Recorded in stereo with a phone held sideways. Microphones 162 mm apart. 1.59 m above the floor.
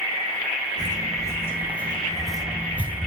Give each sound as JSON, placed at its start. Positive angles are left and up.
{"t": 0.8, "sound": "footsteps", "side_deg": 25, "distance_m": 1.8}